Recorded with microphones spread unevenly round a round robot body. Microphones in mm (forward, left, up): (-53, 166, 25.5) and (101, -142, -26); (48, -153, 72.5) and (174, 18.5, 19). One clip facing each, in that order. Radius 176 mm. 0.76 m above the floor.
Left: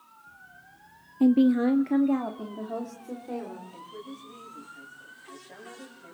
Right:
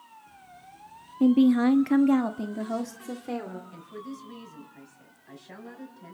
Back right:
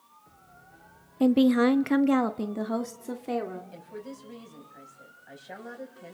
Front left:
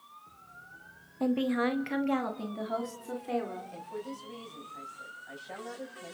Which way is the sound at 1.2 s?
150° right.